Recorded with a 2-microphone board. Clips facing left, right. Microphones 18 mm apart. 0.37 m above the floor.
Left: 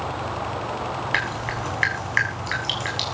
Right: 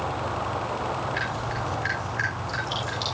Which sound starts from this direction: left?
Dripping, at 1.1 s.